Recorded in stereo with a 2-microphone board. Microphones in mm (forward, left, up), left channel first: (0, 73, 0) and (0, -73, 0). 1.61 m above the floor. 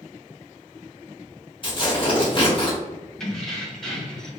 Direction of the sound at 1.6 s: 35° left (ahead or behind).